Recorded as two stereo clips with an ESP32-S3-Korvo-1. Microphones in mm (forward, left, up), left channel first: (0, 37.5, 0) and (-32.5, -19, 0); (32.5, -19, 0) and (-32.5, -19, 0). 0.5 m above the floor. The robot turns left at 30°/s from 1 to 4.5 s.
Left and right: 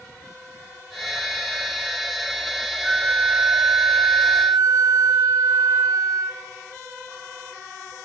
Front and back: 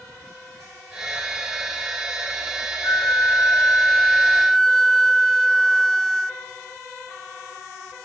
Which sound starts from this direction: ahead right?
A flute, at 2.8 s.